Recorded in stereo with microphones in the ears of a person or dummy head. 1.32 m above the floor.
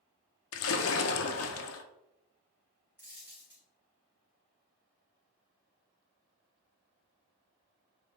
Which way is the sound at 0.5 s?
65° left (ahead or behind).